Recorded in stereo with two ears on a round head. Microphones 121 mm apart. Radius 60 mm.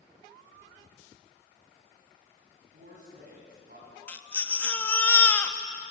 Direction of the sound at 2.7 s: 65° right (ahead or behind).